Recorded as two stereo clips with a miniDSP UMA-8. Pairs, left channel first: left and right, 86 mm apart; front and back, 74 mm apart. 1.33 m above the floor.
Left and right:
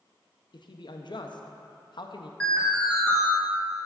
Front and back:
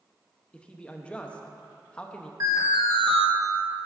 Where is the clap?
No clap in this recording.